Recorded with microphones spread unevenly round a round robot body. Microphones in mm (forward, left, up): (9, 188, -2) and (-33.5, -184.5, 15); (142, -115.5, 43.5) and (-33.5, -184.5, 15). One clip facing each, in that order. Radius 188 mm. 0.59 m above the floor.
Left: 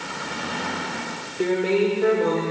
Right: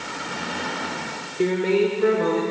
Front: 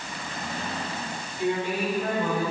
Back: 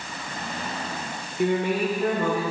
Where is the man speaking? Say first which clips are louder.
Right 1 dB, back 4 dB; 175° right, 1.7 m; by 2.4 s 170° right, 3 m.